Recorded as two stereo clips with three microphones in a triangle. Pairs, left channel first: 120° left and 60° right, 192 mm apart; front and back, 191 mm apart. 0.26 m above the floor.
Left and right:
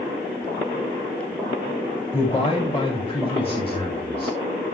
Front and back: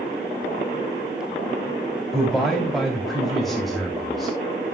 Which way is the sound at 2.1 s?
90° left.